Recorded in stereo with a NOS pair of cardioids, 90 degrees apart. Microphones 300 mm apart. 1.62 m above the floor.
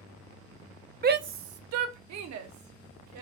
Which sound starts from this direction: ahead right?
A shout, at 1.0 s.